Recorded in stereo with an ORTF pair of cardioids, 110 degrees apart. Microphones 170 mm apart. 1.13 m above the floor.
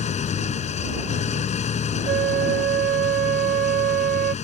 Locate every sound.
0.0 s an engine running: 40° left
2.1 s a flute: 60° right